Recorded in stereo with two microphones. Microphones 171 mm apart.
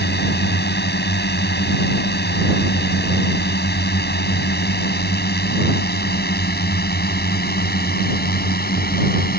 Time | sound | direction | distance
0.0 | a drone | 75° left (ahead or behind) | ?